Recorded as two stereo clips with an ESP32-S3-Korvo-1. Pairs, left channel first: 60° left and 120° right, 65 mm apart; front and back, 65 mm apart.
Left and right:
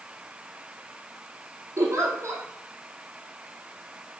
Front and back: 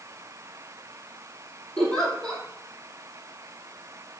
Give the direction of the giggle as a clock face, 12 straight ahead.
3 o'clock.